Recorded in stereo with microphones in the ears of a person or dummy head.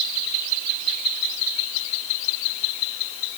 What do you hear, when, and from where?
Only background noise.